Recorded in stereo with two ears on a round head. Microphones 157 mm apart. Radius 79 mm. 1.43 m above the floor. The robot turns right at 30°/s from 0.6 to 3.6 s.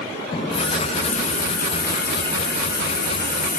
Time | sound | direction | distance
0.3 | a running tap | 30° left | 0.8 m